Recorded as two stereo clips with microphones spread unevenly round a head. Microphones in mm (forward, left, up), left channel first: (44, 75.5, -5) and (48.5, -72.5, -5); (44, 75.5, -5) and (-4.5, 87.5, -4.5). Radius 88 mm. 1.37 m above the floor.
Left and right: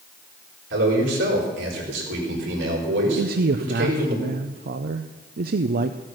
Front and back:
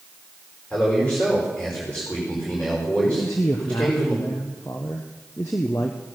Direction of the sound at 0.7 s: 95° right.